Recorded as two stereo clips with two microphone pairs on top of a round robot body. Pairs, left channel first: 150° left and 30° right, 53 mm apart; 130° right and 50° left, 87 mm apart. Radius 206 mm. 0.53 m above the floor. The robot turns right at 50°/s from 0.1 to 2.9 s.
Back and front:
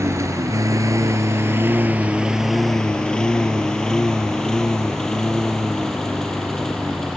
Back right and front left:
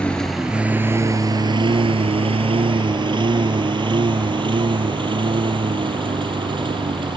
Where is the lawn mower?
55° right; by 7.2 s 70° left.